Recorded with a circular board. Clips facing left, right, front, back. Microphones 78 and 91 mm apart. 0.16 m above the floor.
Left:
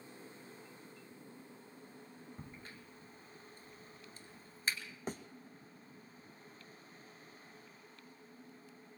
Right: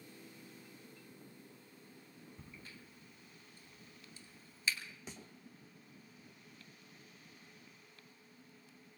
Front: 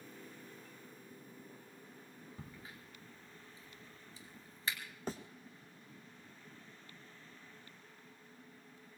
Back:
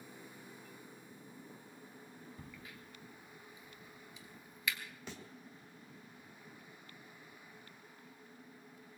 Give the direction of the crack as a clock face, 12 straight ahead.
10 o'clock.